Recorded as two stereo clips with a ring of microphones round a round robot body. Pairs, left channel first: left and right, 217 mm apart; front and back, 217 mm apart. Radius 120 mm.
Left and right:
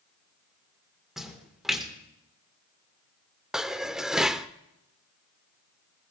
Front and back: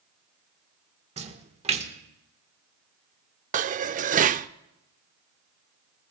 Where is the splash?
175° right, 1.5 m.